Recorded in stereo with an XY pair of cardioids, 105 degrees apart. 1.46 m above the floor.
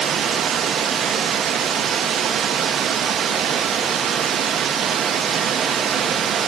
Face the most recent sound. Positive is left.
turn(degrees=-55)